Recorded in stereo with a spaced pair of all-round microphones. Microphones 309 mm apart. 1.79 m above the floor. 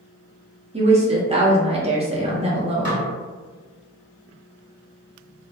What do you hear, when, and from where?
0.7 s a woman speaking: 20° right (ahead or behind), 0.7 m
2.9 s dishes clattering: 35° right (ahead or behind), 1.0 m